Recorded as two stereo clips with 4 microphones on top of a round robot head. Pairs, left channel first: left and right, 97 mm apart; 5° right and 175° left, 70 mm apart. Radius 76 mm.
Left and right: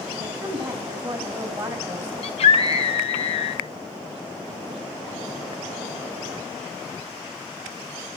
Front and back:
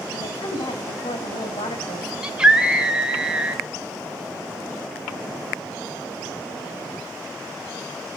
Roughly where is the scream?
Left.